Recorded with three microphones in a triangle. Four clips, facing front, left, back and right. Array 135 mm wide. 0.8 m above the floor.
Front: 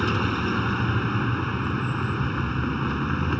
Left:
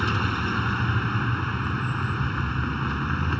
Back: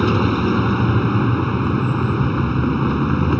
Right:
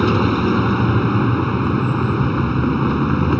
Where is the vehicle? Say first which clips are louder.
Right 10 dB, back 8 dB; 120° right.